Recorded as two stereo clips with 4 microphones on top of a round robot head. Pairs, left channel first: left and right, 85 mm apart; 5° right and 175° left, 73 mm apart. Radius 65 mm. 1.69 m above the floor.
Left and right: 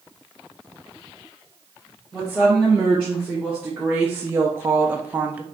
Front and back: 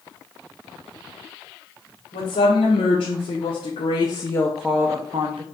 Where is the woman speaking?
Straight ahead, 1.7 m; by 5.4 s 160° right, 0.8 m.